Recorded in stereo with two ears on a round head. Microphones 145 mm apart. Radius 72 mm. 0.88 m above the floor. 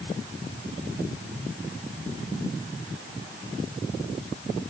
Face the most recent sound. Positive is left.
No sound to turn to.